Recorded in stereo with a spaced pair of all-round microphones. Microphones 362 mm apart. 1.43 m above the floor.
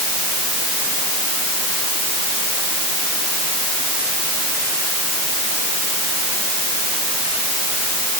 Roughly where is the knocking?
No knocking in this recording.